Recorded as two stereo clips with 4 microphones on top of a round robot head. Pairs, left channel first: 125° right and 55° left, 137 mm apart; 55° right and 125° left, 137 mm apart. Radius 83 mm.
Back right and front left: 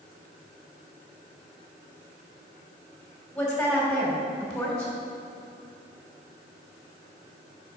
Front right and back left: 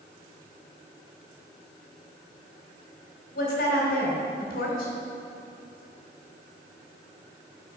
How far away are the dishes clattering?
I don't hear dishes clattering.